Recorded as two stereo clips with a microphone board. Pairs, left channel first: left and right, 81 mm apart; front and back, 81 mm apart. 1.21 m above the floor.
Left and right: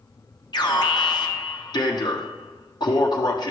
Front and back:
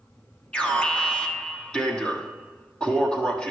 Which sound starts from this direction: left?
An alarm, at 0.5 s.